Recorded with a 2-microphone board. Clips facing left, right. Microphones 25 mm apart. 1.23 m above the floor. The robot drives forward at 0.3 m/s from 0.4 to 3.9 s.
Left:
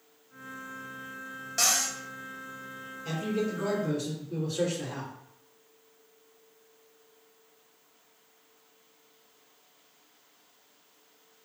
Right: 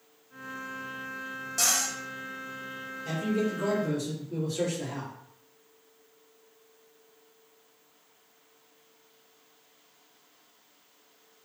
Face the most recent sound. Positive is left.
turn(degrees=15)  # may be behind; listen again after turning